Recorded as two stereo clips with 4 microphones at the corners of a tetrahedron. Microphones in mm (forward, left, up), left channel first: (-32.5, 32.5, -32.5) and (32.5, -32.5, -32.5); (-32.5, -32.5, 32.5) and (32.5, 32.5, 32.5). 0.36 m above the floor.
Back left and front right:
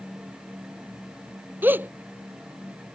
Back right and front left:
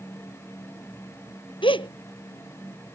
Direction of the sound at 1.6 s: 115° right.